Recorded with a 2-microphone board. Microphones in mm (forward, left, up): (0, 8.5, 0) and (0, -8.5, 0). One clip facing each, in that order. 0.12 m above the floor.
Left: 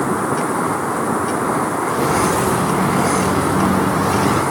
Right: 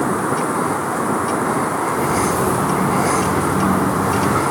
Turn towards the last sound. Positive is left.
turn(degrees=60)  # may be behind; listen again after turning